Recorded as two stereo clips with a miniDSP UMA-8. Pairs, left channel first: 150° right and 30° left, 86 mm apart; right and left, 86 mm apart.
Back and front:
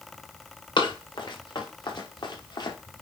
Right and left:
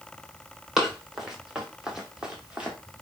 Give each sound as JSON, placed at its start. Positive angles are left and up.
{"t": 0.8, "sound": "running footsteps", "azimuth_deg": 175, "distance_m": 4.0}